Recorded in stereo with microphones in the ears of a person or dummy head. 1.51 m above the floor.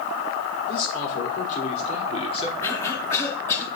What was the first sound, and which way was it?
A man speaking, 55° left (ahead or behind).